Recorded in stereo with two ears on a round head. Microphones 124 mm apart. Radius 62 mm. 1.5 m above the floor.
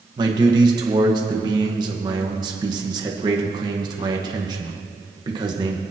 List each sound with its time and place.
0.2 s a man speaking: 30° right (ahead or behind), 1.4 m